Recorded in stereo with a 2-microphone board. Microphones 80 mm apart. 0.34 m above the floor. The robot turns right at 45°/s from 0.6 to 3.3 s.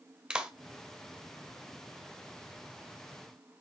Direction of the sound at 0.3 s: 10° right (ahead or behind).